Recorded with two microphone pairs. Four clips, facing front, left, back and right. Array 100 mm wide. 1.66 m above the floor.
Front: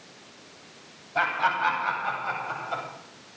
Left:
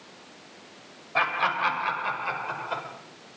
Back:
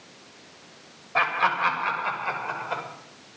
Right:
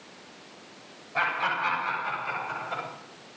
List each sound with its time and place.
1.1 s laughter: 150° left, 7.5 m; by 2.8 s 155° left, 6 m